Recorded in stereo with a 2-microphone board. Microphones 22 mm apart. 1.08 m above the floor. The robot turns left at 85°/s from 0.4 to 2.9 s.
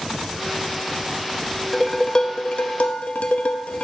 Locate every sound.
1.7 s dishes clattering: straight behind, 0.7 m; by 3.8 s 80° left, 0.7 m